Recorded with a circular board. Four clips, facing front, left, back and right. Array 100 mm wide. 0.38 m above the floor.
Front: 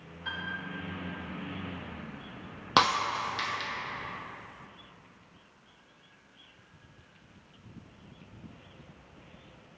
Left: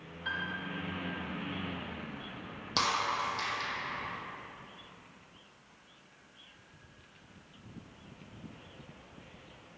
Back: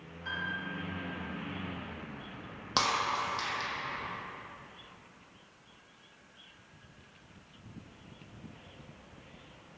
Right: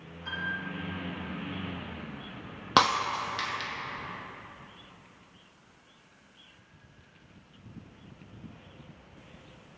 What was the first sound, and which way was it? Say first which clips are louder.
A piano: right 2 dB, even; 75° left.